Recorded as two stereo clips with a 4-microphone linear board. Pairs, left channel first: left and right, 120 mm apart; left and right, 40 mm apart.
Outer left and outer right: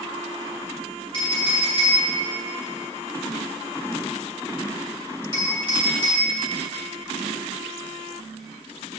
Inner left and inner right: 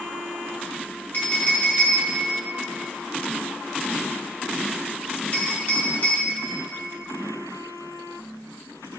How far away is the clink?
About 2 m.